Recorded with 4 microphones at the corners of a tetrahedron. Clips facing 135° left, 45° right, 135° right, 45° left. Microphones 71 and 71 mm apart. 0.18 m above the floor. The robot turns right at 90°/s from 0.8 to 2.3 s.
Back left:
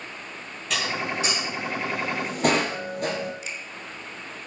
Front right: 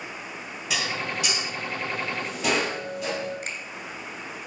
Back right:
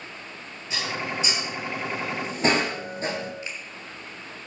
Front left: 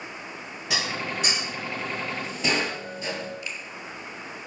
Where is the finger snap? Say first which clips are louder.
Front right 1 dB, even; 70° right, 2.5 m.